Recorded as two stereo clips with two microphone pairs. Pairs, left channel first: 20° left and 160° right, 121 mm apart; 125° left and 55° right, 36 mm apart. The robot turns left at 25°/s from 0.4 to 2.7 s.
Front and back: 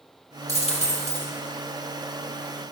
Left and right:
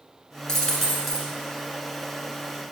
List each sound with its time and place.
0.5 s a dropped coin: 50° left, 1.4 m; by 1.3 s 30° left, 1.4 m